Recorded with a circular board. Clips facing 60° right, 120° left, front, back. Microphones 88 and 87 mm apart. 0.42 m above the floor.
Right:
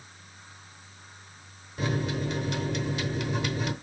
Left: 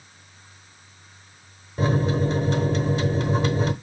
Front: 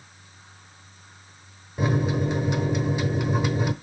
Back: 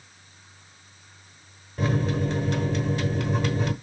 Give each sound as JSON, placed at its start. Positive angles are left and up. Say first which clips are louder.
{"t": 1.8, "sound": "a microwave", "louder": "left 7 dB, front 1 dB", "azimuth_deg": 75, "distance_m": 0.9}